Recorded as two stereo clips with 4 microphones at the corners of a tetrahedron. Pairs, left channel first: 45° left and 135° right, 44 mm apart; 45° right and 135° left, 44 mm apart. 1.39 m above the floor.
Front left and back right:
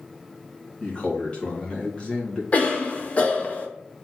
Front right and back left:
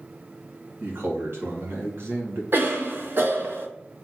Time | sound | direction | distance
0.8 | a man speaking | 110° left | 2 m
2.5 | a cough | 100° left | 1.2 m